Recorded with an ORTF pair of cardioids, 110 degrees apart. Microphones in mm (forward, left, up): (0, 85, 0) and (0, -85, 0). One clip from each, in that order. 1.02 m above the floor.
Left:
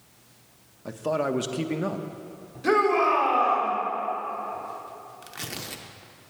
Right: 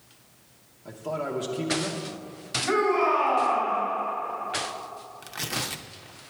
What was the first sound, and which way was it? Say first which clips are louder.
A man speaking: left 5 dB; 40° left.